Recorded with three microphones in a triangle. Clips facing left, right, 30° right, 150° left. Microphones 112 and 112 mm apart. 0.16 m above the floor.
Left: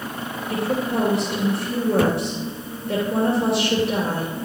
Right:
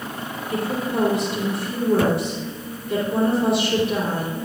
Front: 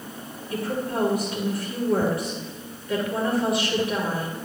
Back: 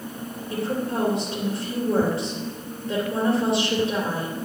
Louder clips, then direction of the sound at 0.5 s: Left 1 dB, back 1 dB; 90° left.